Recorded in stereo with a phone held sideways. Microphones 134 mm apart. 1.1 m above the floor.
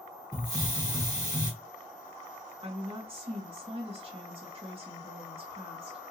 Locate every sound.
0.3 s a hiss: 30° right (ahead or behind), 1.4 m
2.6 s a woman speaking: 40° right (ahead or behind), 1.9 m